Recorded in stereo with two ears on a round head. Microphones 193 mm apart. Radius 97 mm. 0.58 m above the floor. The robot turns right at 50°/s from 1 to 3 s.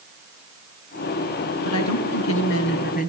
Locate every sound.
1.6 s a woman speaking: 70° left, 5 m; by 3.1 s 135° left, 5 m